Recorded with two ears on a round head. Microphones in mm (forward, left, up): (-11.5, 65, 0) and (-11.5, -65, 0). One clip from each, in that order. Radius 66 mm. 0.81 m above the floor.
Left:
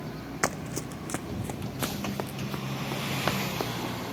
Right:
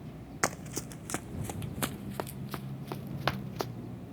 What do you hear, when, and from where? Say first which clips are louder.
0.4 s running footsteps: left 2 dB; 5° right (ahead or behind); by 3.7 s 15° right (ahead or behind)